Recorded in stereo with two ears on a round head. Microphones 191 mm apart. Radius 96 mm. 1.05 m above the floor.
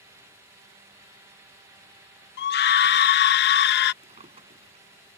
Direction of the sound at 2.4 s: 50° left (ahead or behind).